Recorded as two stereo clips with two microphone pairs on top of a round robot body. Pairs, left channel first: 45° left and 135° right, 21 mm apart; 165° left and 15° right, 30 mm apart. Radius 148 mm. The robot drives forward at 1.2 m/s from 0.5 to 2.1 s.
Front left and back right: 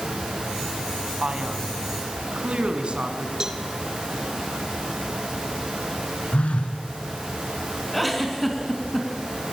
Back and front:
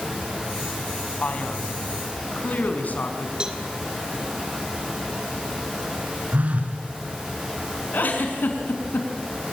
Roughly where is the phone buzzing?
Ahead left.